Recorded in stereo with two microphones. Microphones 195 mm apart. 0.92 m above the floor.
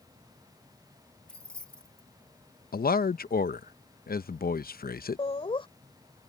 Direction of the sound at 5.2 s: 30° left (ahead or behind).